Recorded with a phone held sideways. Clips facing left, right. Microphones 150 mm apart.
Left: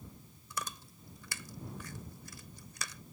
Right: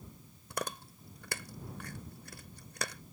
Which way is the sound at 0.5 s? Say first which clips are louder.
Right 4 dB; 60° right (ahead or behind).